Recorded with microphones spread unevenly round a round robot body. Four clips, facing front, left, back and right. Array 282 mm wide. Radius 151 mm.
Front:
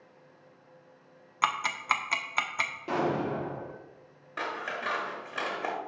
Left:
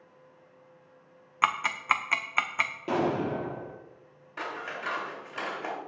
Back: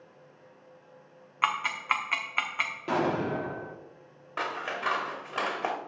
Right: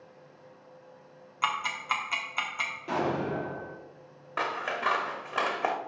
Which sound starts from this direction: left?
An explosion, at 2.9 s.